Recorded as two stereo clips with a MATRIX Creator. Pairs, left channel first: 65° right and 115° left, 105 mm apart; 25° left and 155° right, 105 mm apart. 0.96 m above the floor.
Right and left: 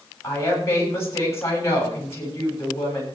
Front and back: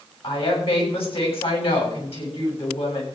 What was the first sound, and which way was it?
A woman speaking, 5° right.